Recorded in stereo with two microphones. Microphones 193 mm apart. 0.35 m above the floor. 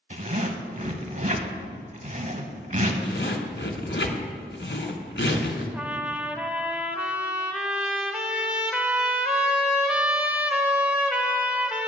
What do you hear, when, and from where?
0.1 s a zipper: 40° right (ahead or behind), 0.9 m
3.0 s a zipper: 75° left (ahead or behind), 1.1 m
5.7 s a trumpet: 5° right (ahead or behind), 0.8 m